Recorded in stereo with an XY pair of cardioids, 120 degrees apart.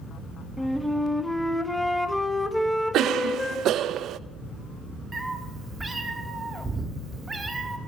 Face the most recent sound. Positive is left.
turn(degrees=-25)